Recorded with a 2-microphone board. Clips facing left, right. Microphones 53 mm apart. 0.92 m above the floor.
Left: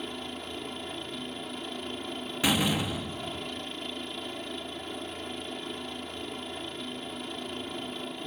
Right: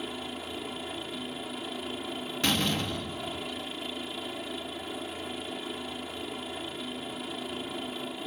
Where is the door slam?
10° left (ahead or behind).